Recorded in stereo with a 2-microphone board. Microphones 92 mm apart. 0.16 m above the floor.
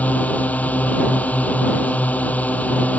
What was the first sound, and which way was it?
A drone, 15° left (ahead or behind).